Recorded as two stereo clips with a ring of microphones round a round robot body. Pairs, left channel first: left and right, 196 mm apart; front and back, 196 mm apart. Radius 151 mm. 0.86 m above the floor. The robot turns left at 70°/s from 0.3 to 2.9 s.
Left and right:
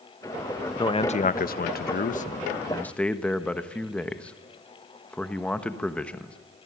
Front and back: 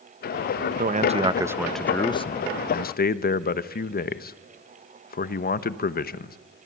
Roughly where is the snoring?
No snoring in this recording.